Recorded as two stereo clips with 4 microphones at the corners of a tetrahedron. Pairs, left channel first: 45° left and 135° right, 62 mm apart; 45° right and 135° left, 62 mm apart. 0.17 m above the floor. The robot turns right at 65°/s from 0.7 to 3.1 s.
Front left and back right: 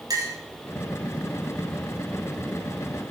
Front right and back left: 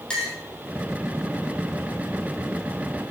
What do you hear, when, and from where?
0.1 s a clink: 120° right, 4 m